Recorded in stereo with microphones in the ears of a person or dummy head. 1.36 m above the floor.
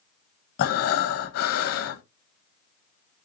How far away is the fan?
I don't hear a fan.